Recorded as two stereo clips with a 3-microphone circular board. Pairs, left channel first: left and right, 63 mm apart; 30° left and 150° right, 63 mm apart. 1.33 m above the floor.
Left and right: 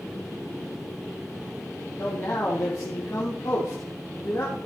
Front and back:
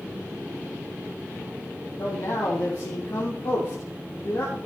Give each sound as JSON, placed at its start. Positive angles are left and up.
{"t": 2.0, "sound": "a man speaking", "azimuth_deg": 45, "distance_m": 1.6}